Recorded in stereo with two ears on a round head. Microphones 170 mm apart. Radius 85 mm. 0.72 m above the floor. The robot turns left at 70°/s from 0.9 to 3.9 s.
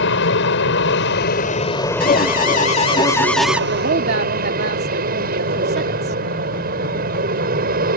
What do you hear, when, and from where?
0.0 s an aircraft: 85° left; by 8.0 s 125° right
2.0 s an alarm: 100° left; by 3.6 s 10° right
3.7 s a woman speaking: 50° right (ahead or behind); by 6.2 s 60° right (ahead or behind)